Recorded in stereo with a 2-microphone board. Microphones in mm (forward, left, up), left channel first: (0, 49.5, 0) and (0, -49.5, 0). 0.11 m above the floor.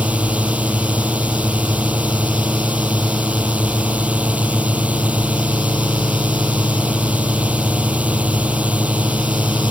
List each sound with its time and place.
0.0 s a drone: 15° right (ahead or behind)